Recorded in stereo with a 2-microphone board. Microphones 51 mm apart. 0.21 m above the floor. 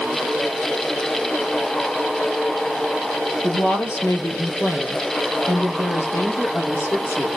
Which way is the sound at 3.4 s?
55° left (ahead or behind).